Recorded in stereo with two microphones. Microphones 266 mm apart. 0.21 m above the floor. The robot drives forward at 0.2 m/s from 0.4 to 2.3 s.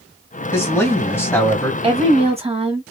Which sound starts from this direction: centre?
A man speaking, at 0.5 s.